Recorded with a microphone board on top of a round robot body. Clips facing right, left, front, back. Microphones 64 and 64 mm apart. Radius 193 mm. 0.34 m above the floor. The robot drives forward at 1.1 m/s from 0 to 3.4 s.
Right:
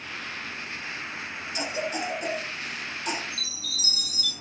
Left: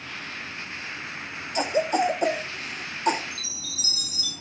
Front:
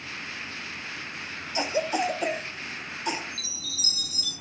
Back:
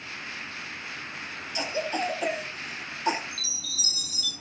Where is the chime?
55° right, 4.5 m.